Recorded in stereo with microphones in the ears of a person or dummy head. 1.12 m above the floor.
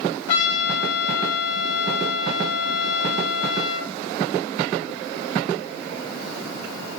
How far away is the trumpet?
About 3 m.